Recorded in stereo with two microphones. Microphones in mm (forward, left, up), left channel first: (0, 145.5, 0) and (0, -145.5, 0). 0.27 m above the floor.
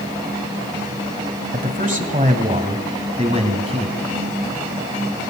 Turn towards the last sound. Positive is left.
turn(degrees=-20)  # may be behind; listen again after turning